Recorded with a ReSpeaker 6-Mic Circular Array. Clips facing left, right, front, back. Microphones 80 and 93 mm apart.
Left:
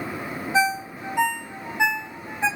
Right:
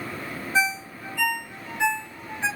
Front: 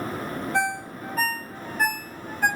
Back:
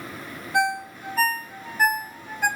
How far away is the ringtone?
About 1.9 m.